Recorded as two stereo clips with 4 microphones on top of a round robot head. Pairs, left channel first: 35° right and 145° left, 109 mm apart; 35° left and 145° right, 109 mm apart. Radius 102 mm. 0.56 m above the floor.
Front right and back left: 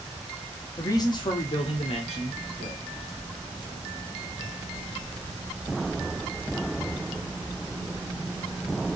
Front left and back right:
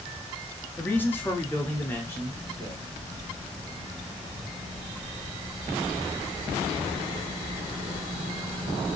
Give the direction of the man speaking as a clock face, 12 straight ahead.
1 o'clock.